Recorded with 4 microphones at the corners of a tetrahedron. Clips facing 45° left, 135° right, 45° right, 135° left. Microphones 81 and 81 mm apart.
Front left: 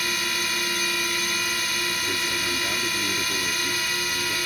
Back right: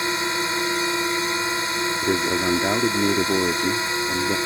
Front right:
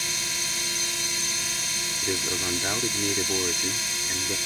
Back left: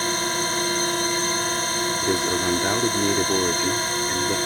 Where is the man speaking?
160° right.